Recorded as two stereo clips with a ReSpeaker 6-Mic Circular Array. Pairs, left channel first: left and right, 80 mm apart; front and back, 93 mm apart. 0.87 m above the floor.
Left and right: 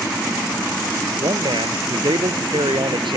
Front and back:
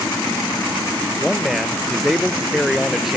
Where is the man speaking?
95° right.